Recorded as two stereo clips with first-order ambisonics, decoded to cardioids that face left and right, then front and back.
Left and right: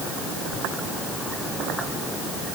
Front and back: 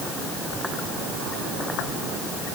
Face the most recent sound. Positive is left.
No sound to turn to.